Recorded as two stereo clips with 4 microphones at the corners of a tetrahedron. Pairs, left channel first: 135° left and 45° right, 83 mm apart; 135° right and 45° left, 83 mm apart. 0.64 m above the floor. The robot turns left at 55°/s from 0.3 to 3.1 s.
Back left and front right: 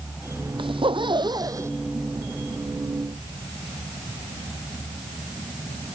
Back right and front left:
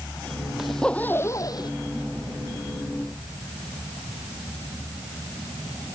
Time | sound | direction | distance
0.6 | a zipper | 40° right | ?